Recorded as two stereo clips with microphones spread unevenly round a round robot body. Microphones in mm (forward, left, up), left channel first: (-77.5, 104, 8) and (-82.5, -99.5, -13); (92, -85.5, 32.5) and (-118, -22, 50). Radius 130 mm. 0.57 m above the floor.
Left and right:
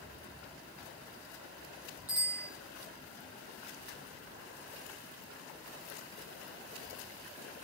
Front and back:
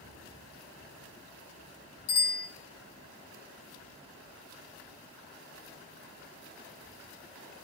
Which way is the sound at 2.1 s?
20° right.